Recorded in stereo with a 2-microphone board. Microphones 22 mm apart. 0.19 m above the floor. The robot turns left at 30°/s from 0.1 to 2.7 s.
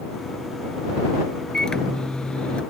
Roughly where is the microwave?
Behind left.